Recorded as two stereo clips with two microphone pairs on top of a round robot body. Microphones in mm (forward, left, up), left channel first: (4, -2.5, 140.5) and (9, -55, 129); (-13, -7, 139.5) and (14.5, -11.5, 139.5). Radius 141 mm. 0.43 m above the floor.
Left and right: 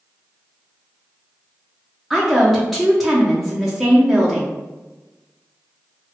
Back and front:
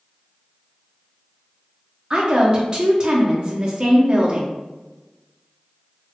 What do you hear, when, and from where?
2.1 s a woman speaking: 20° right, 0.9 m